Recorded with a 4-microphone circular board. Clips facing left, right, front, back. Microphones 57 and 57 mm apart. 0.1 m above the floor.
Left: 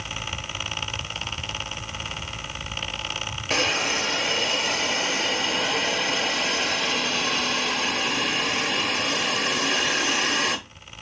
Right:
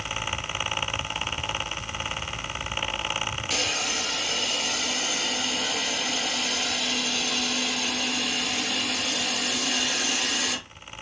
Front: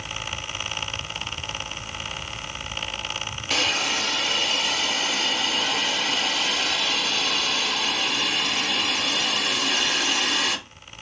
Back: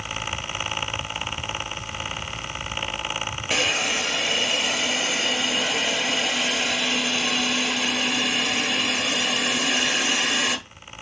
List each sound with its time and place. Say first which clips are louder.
3.5 s a hiss: left 8 dB, back 1 dB; 115° left, 0.7 m